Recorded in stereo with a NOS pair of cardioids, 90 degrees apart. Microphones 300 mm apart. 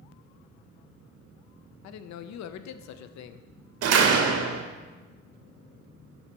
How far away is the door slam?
About 1.0 m.